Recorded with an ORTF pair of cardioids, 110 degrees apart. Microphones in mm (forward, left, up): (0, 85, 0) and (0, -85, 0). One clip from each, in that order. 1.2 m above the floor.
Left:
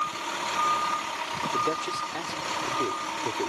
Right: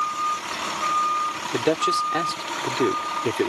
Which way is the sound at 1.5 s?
55° right.